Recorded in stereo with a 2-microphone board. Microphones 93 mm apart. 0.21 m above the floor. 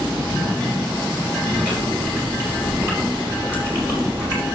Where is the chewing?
25° right (ahead or behind), 4 m.